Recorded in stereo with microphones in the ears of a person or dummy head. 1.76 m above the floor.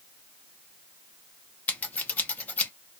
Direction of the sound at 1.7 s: 10° left (ahead or behind).